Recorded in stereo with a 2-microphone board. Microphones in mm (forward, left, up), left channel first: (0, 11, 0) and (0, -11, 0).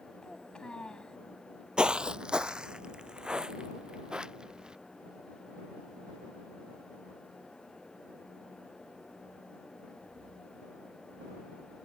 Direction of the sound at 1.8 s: 50° right (ahead or behind).